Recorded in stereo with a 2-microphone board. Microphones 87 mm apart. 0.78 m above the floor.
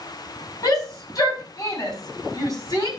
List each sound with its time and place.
0.6 s a shout: 45° left (ahead or behind), 6.5 m